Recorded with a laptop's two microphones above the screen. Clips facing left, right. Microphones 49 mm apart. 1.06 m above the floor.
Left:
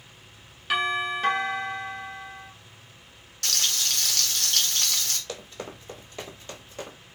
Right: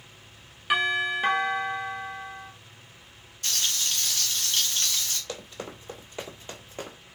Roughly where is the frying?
Left.